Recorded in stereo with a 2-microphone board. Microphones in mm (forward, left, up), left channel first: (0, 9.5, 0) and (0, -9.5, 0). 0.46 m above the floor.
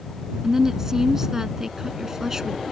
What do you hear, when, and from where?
0.4 s a woman speaking: 25° right (ahead or behind)